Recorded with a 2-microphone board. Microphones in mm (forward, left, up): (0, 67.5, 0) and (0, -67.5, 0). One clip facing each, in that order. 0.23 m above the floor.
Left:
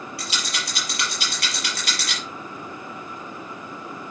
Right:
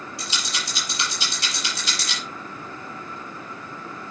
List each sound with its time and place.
0.2 s a rattle: 75° left (ahead or behind), 6 m